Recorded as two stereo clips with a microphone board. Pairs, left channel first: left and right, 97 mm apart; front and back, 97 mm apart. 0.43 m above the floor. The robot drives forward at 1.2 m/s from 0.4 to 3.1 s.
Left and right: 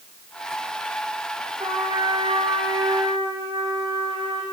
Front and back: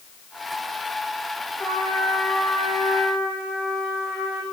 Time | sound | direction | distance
1.6 | a trumpet | 70° right | 9 m